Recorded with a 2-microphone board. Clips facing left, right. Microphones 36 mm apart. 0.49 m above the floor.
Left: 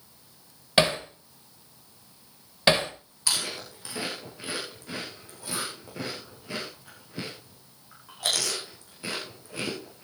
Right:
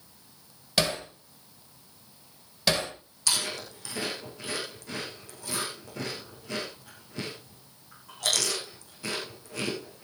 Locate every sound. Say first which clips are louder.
0.8 s hammering: left 5 dB; 35° left (ahead or behind), 1.5 m
3.3 s chewing: even; 15° left (ahead or behind), 8.5 m